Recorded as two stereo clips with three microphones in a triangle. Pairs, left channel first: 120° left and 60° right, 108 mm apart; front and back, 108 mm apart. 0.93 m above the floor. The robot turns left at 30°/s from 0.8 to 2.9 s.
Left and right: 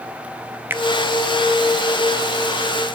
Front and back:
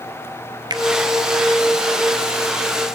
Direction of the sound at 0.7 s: 130° right.